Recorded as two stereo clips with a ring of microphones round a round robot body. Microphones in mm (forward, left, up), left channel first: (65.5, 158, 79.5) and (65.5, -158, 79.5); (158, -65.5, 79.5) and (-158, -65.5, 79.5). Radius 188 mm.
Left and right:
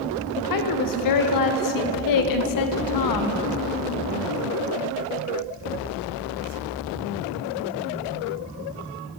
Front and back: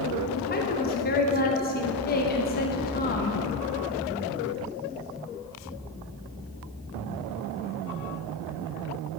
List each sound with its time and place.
0.4 s a woman speaking: 65° left, 0.8 m